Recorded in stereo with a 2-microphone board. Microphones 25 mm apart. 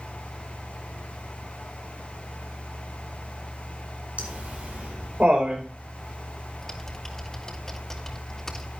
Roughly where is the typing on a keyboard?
Centre.